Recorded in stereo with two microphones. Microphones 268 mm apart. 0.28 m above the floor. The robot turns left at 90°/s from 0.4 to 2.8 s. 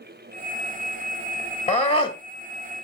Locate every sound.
1.7 s a scream: 25° left (ahead or behind), 1.1 m; by 2.2 s 15° left (ahead or behind), 1.1 m